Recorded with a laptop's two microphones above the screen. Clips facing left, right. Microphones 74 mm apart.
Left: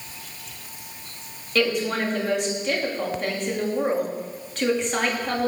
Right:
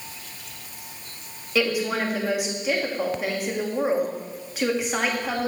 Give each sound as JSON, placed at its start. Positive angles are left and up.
{"t": 1.6, "sound": "a woman speaking", "side_deg": -10, "distance_m": 2.0}